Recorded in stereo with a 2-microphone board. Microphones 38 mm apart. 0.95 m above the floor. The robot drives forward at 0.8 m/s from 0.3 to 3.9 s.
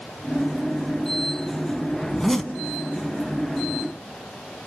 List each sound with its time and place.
2.1 s a zipper: 5° left (ahead or behind), 1.6 m